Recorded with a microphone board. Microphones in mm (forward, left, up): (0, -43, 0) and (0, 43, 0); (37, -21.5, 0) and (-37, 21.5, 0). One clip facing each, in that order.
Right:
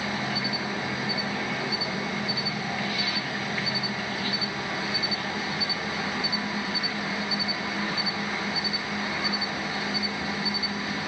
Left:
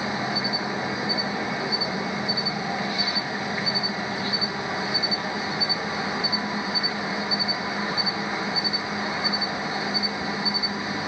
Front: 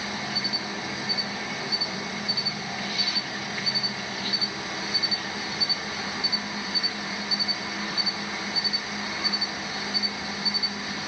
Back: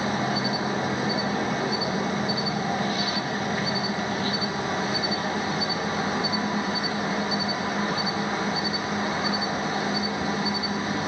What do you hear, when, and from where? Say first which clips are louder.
0.0 s an insect: left 3 dB, back 7 dB; 145° left, 1.2 m